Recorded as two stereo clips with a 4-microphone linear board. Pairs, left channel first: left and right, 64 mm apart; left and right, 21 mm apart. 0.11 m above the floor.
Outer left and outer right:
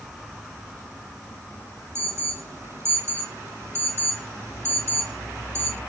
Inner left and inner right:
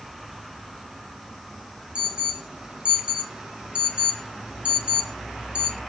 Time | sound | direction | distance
1.9 | an alarm | 45° right (ahead or behind) | 1.3 m